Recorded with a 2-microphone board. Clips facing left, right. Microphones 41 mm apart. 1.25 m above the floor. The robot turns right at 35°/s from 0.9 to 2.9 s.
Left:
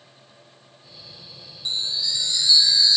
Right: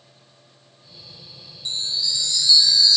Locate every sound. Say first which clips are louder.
1.6 s a chime: even; 20° left (ahead or behind), 0.7 m; by 3.0 s 25° left (ahead or behind), 0.7 m